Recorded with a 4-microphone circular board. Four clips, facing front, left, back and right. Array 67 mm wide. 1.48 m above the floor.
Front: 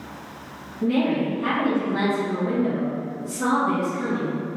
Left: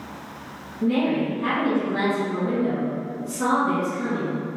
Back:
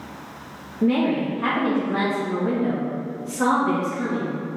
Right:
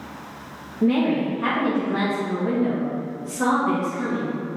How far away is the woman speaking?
About 2.5 m.